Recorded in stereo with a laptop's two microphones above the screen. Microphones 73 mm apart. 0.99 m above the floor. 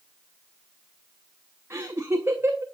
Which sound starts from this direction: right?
Laughter, at 1.7 s.